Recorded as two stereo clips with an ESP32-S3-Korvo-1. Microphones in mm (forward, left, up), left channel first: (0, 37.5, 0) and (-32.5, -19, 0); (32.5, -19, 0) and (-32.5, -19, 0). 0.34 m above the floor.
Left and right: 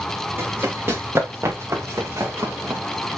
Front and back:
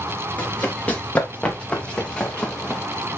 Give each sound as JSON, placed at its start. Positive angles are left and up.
{"t": 0.4, "sound": "running footsteps", "azimuth_deg": -70, "distance_m": 3.5}